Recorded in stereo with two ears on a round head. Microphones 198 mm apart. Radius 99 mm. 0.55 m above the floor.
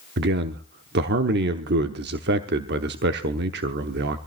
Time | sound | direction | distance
0.2 | a man speaking | 55° right (ahead or behind) | 1.0 m